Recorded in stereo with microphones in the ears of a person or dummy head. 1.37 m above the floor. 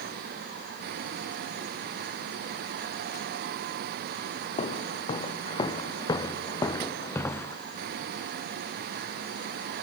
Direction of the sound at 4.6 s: 30° left (ahead or behind).